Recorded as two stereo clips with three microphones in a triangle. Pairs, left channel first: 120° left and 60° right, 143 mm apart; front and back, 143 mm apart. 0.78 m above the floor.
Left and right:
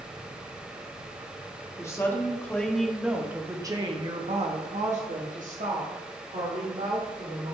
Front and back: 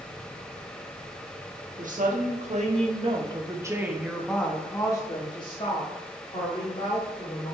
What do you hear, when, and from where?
1.8 s a woman speaking: 175° right, 1.4 m; by 7.5 s 40° right, 2.5 m